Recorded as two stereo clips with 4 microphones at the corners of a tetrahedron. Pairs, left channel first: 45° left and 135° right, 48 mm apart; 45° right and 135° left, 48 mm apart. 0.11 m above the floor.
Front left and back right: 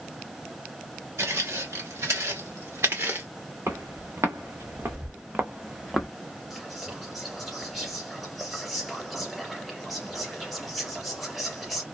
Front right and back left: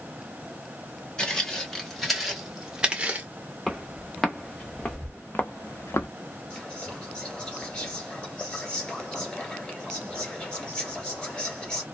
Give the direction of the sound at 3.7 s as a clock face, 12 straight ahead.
5 o'clock.